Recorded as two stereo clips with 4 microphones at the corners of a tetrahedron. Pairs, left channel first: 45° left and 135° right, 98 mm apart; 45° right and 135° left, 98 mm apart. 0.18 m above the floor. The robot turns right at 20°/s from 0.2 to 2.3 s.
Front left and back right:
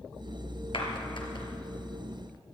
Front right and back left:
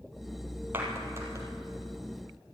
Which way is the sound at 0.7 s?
65° left.